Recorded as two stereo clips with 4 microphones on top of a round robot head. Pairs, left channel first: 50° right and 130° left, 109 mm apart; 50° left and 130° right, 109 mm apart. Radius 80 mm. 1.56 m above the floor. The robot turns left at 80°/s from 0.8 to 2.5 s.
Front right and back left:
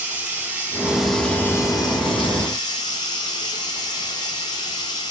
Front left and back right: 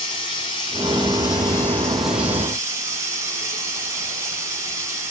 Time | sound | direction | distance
0.0 | running water | 60° left | 0.7 m